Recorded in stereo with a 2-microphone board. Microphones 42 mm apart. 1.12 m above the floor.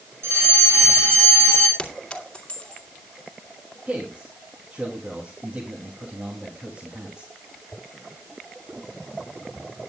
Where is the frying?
No frying in this recording.